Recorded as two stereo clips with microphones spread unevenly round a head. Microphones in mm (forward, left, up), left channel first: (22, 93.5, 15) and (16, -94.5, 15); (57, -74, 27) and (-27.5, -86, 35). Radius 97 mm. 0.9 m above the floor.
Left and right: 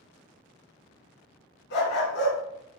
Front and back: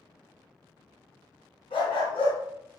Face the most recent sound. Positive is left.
turn(degrees=60)